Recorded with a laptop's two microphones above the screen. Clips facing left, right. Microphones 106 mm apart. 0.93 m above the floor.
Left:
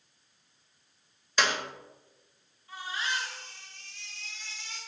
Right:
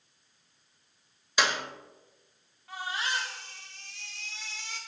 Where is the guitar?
No guitar in this recording.